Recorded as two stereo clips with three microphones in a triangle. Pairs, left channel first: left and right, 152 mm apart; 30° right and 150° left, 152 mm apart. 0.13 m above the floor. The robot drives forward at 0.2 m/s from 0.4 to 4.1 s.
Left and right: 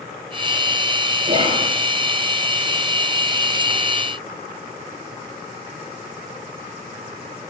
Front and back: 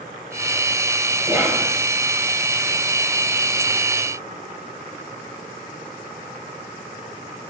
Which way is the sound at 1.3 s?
135° right.